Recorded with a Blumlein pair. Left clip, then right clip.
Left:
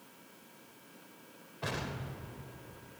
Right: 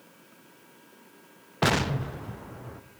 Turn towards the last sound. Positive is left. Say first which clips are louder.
# right 13 dB
turn(degrees=-40)